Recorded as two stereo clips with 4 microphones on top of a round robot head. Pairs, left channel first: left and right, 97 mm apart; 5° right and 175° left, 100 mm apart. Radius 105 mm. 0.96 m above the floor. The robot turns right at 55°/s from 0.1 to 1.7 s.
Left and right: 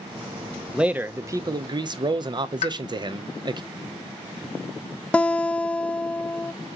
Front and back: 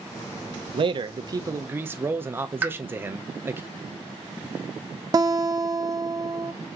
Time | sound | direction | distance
0.7 | a man speaking | 175° right | 0.6 m
2.6 | a pop | 100° left | 0.7 m
5.1 | a guitar | 160° left | 0.7 m